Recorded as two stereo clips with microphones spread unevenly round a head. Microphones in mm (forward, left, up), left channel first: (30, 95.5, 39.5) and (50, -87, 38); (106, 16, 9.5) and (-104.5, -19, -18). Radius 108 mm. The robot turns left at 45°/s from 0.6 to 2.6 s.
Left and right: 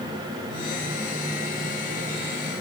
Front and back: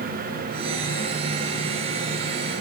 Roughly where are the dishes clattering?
I don't hear dishes clattering.